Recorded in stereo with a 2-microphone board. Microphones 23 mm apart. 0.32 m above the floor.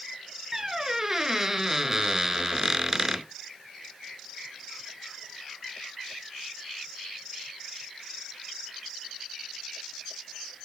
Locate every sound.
0.5 s a squeak: 20° right (ahead or behind), 0.5 m